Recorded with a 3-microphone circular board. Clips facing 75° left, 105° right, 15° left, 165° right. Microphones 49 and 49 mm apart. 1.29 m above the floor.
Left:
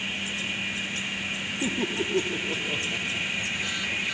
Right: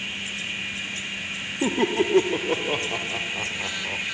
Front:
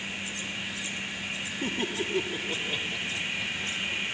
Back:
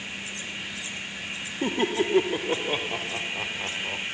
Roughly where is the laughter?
Right.